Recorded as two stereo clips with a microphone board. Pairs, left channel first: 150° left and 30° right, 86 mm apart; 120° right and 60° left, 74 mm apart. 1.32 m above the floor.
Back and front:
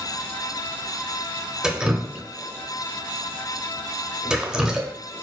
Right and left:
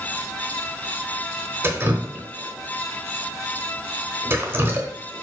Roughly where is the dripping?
Ahead left.